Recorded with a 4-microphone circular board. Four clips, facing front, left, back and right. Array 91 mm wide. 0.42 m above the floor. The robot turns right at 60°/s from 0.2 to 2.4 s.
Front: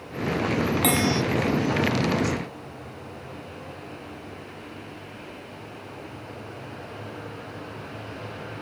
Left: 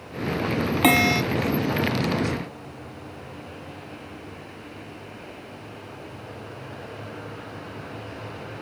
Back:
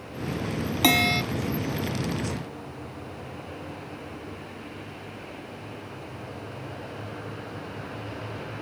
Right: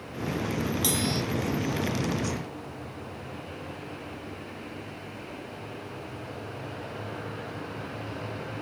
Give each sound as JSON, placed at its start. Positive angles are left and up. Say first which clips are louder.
{"t": 0.8, "sound": "a bell", "louder": "left 9 dB, back 3 dB", "azimuth_deg": 100}